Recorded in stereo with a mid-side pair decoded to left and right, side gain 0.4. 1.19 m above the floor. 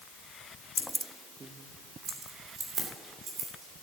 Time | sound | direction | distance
0.8 | keys jangling | 25° left | 0.5 m